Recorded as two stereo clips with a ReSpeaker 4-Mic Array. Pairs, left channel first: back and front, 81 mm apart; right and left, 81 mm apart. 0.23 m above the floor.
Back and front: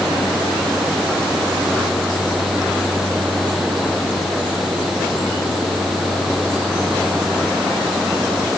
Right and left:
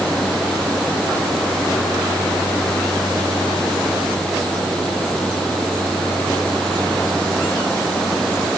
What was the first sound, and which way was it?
Only background noise.